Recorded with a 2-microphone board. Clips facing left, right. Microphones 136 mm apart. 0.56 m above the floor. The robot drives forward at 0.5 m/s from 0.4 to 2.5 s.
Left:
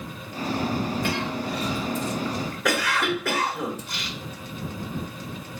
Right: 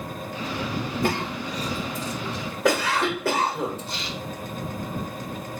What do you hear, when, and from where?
1.0 s a cough: 50° right (ahead or behind), 1.1 m; by 4.2 s 30° right (ahead or behind), 1.5 m